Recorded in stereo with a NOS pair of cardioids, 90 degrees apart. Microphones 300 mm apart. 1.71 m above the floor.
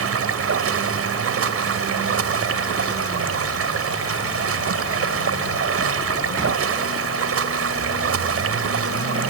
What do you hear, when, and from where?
0.0 s running water: 50° right